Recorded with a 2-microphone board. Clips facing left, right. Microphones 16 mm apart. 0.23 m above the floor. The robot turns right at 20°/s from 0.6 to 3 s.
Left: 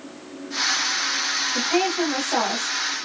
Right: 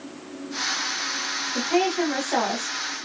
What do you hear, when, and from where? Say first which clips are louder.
1.6 s a woman speaking: right 2 dB; 10° left (ahead or behind), 1.0 m; by 2.8 s 20° left (ahead or behind), 1.0 m